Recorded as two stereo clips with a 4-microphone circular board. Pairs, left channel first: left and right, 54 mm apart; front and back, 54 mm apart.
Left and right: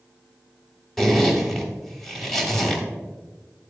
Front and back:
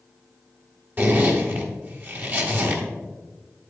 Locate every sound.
1.0 s a zipper: 165° left, 1.2 m